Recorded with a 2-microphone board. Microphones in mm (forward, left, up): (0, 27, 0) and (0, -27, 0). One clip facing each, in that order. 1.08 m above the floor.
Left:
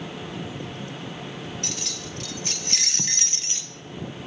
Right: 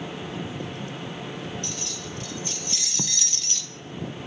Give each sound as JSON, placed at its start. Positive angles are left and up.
{"t": 1.6, "sound": "keys jangling", "side_deg": 80, "distance_m": 1.4}
{"t": 3.0, "sound": "writing", "side_deg": -20, "distance_m": 0.5}